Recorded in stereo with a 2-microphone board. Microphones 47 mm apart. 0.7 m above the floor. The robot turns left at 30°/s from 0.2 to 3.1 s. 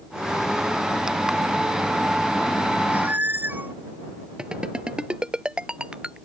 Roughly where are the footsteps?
I don't hear footsteps.